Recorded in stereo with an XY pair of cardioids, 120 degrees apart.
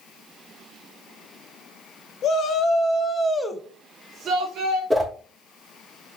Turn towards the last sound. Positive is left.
turn(degrees=-15)